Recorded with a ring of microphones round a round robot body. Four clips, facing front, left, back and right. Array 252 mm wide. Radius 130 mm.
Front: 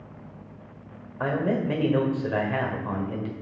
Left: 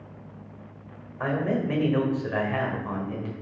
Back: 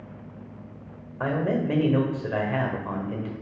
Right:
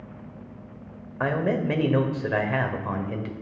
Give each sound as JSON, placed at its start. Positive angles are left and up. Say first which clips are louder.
{"t": 1.2, "sound": "a man speaking", "louder": "right 2 dB, even", "azimuth_deg": -85, "distance_m": 1.5}